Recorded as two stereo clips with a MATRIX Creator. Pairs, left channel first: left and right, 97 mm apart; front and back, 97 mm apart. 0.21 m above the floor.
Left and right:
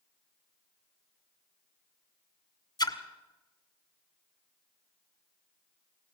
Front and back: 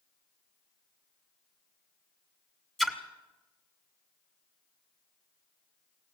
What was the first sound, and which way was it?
A splash, 85° left.